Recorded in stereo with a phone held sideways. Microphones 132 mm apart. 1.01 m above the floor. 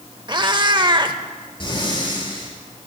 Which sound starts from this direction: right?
A cat meowing, at 0.3 s.